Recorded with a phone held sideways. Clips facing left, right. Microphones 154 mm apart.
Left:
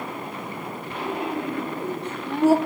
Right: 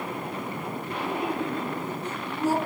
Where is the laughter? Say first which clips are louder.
Left 1 dB; 75° left (ahead or behind), 5 m.